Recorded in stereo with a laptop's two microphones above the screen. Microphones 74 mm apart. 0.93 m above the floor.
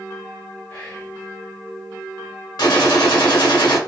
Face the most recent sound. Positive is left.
turn(degrees=65)  # may be behind; listen again after turning